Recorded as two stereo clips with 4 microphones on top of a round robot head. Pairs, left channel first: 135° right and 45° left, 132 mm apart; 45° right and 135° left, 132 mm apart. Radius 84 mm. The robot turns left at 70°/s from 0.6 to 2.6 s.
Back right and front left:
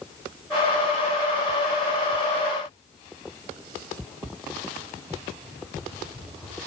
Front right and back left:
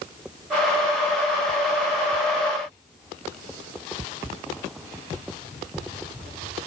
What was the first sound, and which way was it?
Only background noise.